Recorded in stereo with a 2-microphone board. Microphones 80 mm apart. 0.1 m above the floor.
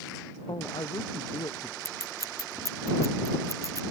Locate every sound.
0.5 s a man speaking: 65° left (ahead or behind)
1.9 s scissors: 45° right (ahead or behind)